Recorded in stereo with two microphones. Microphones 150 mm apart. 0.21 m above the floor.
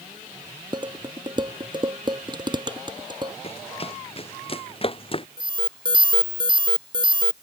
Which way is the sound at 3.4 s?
40° left (ahead or behind).